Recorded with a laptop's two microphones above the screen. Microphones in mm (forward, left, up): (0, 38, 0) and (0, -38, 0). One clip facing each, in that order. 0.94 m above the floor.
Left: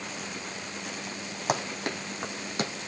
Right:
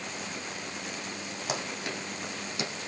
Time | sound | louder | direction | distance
1.5 | running footsteps | left 5 dB | 55° left (ahead or behind) | 3 m